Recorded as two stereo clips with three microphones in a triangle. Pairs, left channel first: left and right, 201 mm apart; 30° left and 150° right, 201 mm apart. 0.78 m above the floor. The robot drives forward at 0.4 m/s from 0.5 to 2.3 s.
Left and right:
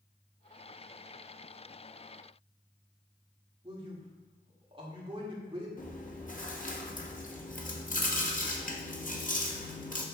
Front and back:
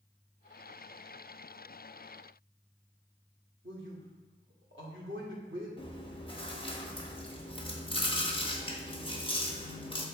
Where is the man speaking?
155° right, 2 m.